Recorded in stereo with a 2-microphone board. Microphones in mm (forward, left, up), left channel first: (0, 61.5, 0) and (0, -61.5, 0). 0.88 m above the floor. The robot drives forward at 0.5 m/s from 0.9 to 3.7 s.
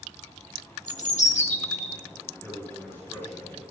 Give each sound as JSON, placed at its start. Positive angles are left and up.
{"t": 0.9, "sound": "a bird", "side_deg": 75, "distance_m": 1.5}
{"t": 2.4, "sound": "a man speaking", "side_deg": 15, "distance_m": 6.5}